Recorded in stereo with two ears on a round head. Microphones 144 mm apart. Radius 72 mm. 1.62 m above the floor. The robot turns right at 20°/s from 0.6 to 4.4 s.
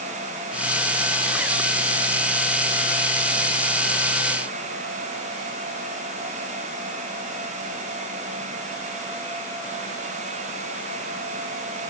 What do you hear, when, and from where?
Only background noise.